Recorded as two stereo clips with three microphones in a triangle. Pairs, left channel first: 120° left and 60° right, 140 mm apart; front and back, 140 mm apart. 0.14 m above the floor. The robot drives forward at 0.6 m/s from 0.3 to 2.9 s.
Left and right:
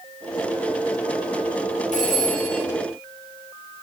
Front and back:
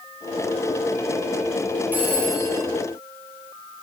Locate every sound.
1.9 s a phone ringing: 105° left, 2.5 m; by 2.6 s 115° left, 2.5 m